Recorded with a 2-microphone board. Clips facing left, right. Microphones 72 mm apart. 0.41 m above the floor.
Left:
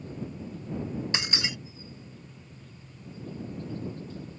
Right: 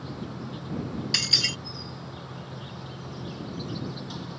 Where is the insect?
85° right.